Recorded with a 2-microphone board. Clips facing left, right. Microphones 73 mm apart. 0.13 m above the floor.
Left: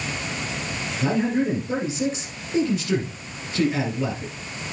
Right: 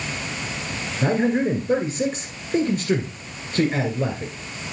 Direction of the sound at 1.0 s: 50° right (ahead or behind).